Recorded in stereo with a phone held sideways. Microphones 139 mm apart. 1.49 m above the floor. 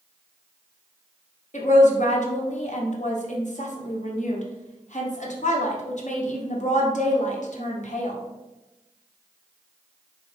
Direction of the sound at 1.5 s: 60° left (ahead or behind).